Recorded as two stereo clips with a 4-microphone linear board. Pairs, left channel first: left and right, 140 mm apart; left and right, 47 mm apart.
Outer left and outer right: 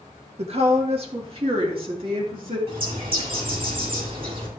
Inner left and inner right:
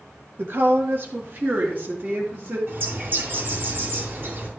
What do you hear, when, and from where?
0.4 s a woman speaking: 50° right (ahead or behind), 1.5 m; by 2.6 s 40° right (ahead or behind), 3 m
2.7 s a bird: 40° right (ahead or behind), 3 m